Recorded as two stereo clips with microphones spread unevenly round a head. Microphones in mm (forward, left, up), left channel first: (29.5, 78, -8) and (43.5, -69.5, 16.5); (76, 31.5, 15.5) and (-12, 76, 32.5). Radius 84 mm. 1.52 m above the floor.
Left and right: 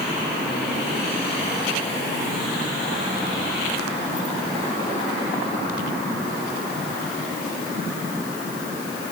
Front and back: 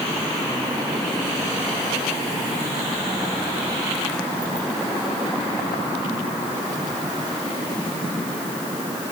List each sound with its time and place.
Only background noise.